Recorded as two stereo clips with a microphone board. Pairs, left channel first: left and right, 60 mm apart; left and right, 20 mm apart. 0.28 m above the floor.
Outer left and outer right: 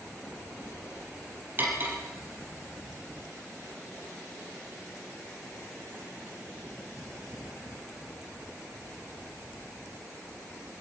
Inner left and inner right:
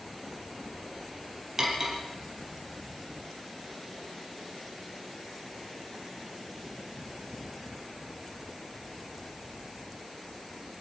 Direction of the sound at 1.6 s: 35° right (ahead or behind).